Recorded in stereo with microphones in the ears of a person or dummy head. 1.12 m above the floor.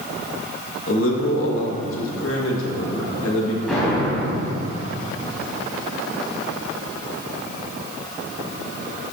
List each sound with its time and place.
0.9 s a man speaking: 65° left (ahead or behind), 1.5 m
3.7 s an explosion: centre (ahead or behind), 3 m